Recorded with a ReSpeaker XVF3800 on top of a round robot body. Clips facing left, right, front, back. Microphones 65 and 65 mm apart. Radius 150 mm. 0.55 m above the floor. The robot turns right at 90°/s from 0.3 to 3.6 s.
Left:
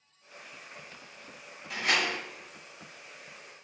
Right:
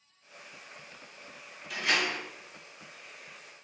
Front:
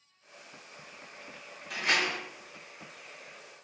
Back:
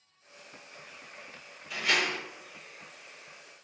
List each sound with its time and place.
1.7 s a door slam: 35° left, 4 m; by 2.2 s 75° left, 4 m